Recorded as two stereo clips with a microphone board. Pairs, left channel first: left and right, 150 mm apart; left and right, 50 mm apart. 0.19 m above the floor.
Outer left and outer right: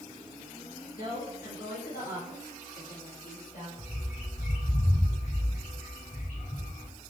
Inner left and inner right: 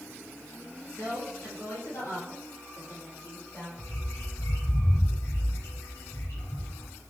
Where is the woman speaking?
65° left (ahead or behind), 4 m; by 3.7 s 70° left (ahead or behind), 4 m.